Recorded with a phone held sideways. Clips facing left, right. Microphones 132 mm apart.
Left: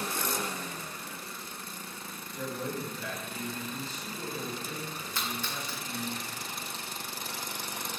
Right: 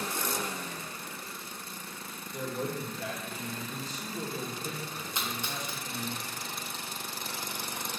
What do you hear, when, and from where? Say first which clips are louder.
2.3 s a man speaking: right 1 dB; 85° right, 2.5 m
5.2 s a splash: even; 20° right (ahead or behind), 1.4 m